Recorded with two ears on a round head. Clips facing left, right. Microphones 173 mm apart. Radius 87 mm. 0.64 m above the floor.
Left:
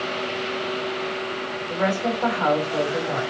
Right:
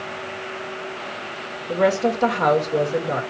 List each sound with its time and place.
1.7 s a woman speaking: 50° right (ahead or behind), 2 m